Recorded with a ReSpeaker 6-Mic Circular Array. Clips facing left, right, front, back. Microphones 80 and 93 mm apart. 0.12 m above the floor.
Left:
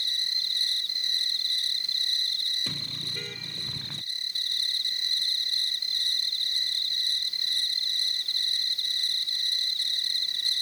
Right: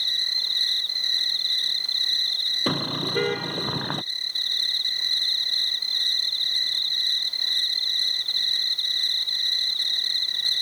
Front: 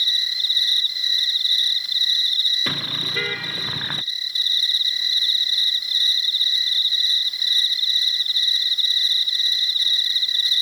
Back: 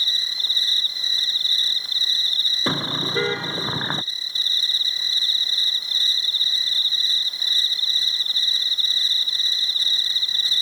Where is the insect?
125° right.